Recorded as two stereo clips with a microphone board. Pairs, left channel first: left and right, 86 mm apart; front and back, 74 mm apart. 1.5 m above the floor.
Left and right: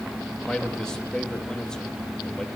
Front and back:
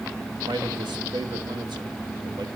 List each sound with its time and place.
0.5 s a man speaking: 175° left, 2.5 m